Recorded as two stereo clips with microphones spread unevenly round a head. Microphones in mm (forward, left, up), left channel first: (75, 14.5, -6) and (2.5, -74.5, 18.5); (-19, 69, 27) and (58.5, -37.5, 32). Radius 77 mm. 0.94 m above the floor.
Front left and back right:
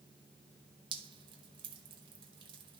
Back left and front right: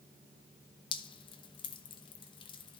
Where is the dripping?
170° left, 0.8 m.